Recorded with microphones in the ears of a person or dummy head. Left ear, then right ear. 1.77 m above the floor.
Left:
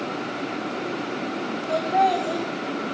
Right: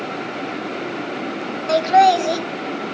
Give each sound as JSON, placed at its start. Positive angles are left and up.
{"t": 1.7, "sound": "laughter", "side_deg": -70, "distance_m": 0.7}